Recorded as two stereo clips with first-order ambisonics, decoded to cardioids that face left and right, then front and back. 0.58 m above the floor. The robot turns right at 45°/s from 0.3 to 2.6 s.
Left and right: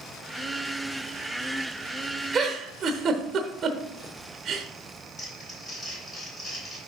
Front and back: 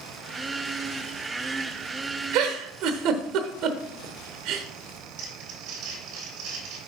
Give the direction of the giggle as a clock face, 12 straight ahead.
5 o'clock.